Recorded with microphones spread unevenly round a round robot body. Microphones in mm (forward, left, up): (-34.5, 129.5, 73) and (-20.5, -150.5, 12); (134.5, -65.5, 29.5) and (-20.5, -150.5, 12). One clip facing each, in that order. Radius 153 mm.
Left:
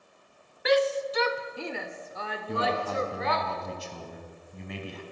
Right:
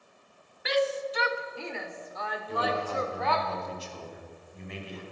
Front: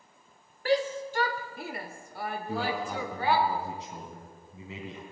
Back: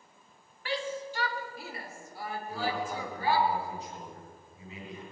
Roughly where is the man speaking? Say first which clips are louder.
Left 2 dB, front 1 dB; left.